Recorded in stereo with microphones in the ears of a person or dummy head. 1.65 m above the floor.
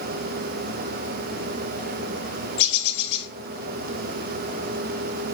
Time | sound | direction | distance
2.6 | a bird | 70° left (ahead or behind) | 1.2 m